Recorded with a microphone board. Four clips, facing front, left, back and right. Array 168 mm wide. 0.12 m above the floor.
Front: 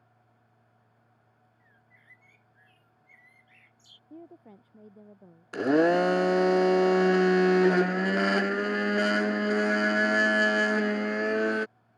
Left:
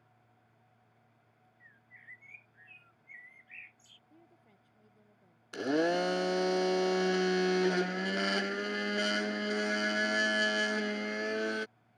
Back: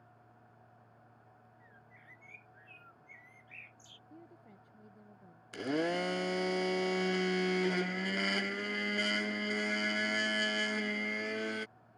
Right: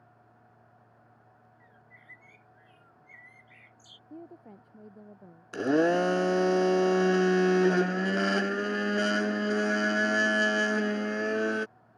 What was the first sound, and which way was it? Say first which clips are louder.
A bird: left 1 dB, back 3 dB; 175° right.